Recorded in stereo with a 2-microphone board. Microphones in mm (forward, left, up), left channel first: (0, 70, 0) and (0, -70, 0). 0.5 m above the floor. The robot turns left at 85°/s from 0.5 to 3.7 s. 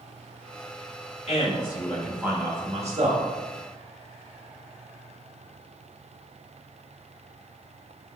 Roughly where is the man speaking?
Left.